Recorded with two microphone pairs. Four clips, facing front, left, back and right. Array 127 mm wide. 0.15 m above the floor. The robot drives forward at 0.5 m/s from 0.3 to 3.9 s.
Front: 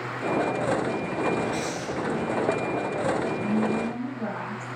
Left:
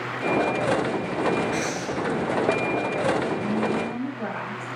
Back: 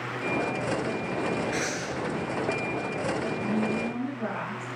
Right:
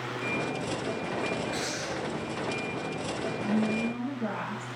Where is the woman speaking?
75° left, 3.5 m; by 4.7 s 80° left, 3 m.